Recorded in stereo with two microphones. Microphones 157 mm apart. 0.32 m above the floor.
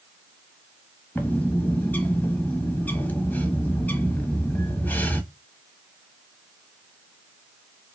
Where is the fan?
No fan in this recording.